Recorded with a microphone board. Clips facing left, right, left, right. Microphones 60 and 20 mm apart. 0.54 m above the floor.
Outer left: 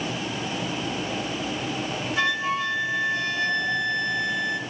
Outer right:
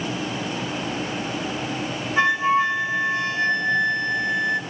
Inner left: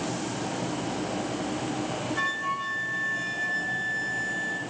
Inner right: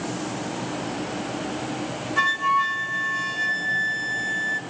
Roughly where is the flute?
Right.